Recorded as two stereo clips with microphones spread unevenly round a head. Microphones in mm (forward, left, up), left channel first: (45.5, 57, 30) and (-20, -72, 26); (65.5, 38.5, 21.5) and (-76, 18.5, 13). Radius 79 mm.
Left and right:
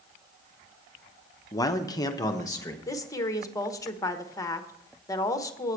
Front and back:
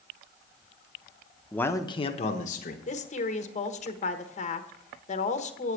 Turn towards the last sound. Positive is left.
turn(degrees=5)